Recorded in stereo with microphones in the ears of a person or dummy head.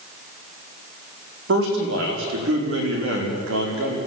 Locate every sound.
1.5 s a man speaking: 75° right (ahead or behind), 5 m